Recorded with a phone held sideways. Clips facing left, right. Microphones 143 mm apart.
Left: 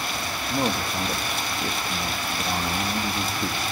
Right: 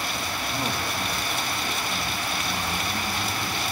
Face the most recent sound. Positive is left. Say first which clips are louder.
# left 6 dB
turn(degrees=60)  # may be behind; listen again after turning